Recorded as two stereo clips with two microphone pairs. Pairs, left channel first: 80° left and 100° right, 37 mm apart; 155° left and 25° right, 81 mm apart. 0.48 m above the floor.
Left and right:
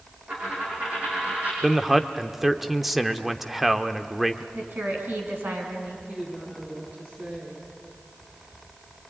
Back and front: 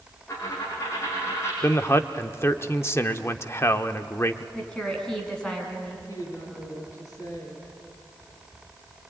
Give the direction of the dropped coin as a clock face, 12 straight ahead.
5 o'clock.